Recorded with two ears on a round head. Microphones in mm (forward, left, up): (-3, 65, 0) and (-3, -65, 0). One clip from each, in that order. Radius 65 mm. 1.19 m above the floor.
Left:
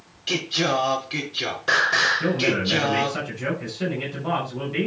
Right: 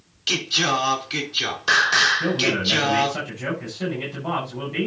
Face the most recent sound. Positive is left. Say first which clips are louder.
# right 1 dB
turn(degrees=0)  # may be behind; listen again after turning